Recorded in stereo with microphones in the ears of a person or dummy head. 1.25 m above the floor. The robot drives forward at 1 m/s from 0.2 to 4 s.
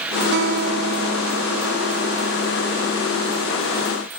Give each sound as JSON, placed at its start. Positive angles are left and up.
{"t": 0.3, "sound": "a guitar", "side_deg": -60}